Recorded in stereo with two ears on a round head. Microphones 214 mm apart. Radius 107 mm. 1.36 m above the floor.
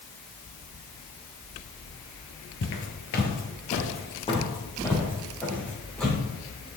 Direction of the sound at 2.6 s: 50° left (ahead or behind).